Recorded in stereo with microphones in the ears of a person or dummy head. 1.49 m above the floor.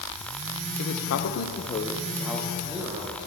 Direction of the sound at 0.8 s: 85° left.